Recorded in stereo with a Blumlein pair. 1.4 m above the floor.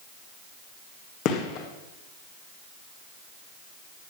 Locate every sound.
1.2 s a gunshot: 40° left, 1.9 m